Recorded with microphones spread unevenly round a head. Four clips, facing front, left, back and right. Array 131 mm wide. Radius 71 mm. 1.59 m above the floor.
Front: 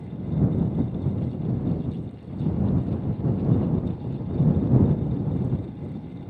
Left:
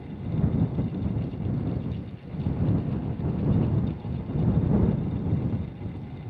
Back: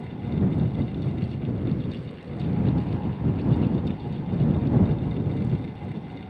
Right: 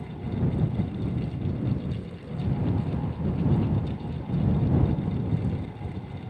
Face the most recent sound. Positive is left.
No sound to turn to.